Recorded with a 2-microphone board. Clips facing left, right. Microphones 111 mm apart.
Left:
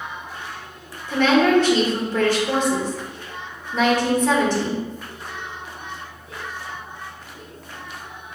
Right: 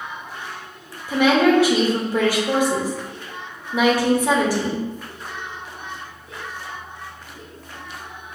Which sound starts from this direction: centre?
A woman speaking, at 1.1 s.